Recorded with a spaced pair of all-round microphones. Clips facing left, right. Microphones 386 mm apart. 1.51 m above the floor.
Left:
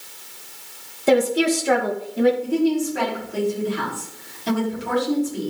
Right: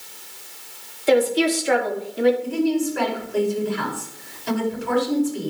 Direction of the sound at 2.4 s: 85° left.